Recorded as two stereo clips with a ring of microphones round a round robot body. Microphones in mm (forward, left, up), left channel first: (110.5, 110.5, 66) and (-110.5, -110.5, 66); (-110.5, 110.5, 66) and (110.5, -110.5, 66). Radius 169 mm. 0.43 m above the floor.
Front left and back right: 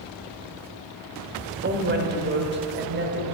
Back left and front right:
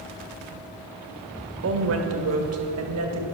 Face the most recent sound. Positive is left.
turn(degrees=-80)